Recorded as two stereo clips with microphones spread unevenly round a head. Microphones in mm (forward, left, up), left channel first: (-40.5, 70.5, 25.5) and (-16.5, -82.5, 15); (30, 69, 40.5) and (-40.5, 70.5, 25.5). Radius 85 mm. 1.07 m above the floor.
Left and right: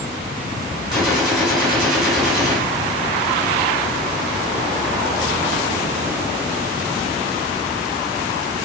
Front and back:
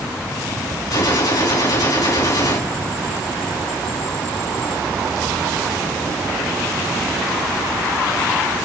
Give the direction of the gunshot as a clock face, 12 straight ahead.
12 o'clock.